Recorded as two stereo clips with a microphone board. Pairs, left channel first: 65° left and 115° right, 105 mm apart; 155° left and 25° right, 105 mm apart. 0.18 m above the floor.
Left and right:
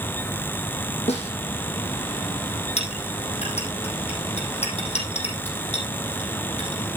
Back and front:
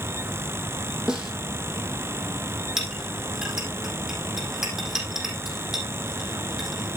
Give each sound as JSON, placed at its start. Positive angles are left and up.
{"t": 1.1, "sound": "a snare drum", "azimuth_deg": 60, "distance_m": 3.5}
{"t": 2.8, "sound": "a clink", "azimuth_deg": 65, "distance_m": 4.0}